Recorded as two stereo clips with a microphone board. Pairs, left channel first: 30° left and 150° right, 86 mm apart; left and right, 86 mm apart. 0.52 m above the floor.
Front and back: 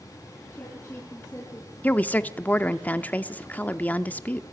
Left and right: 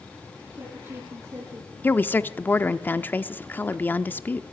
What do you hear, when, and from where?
0.5 s a woman speaking: 35° right, 8 m; by 1.7 s 30° right, 8 m
1.8 s a woman speaking: 65° left, 0.8 m